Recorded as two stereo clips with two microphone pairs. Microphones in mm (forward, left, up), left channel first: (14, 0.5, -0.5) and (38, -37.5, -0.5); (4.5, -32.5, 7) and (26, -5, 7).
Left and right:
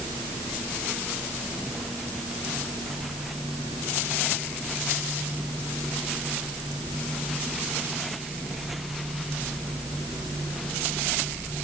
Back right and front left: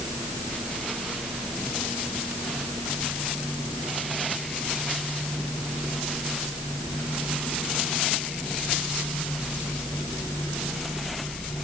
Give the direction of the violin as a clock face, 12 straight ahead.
I don't hear a violin.